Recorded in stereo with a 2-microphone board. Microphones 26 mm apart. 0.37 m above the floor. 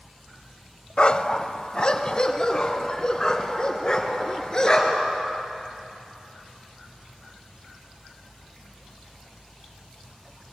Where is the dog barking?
40° left (ahead or behind), 0.6 m; by 5.1 s 20° left (ahead or behind), 3 m.